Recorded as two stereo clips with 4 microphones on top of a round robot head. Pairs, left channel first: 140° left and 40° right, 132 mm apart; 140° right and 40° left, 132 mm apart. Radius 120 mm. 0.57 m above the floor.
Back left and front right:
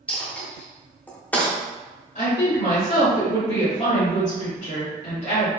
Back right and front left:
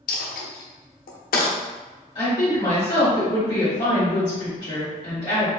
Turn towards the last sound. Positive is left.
turn(degrees=165)